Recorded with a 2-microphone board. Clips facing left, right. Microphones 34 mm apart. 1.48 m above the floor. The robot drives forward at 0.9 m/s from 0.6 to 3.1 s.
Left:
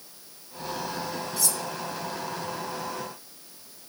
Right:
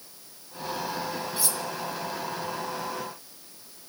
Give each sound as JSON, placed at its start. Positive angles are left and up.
{"t": 1.4, "sound": "cutlery clinking", "side_deg": -25, "distance_m": 0.6}